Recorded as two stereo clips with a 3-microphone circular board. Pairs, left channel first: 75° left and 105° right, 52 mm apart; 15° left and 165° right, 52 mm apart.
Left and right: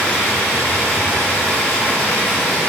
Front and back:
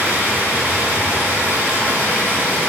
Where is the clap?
I don't hear a clap.